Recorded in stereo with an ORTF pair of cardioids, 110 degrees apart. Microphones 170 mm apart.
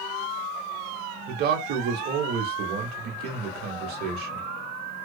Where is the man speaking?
60° right, 1.1 m.